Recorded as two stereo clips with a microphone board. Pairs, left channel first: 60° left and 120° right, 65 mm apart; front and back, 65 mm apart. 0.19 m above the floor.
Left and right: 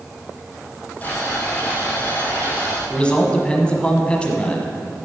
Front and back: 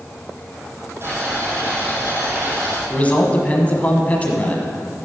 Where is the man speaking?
15° left, 1.1 m.